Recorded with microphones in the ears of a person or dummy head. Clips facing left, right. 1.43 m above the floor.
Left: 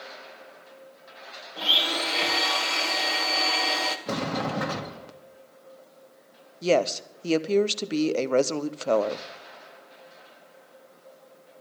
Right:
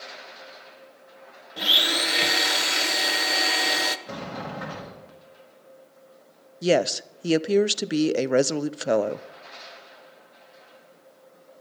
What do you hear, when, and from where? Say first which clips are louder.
1.6 s a blender: right 1 dB; 25° right (ahead or behind), 1.3 m
4.1 s a sliding door: left 6 dB; 75° left (ahead or behind), 1.7 m
6.6 s a woman speaking: right 1 dB; 20° right (ahead or behind), 0.6 m